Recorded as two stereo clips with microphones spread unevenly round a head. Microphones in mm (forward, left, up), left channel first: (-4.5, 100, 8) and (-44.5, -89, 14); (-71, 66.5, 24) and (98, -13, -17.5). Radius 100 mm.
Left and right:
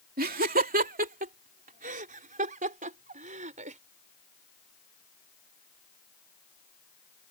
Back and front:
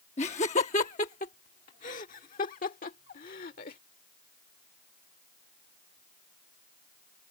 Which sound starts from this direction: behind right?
Laughter, at 0.2 s.